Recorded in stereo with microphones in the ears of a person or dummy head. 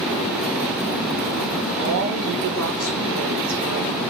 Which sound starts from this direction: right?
A woman speaking, at 1.8 s.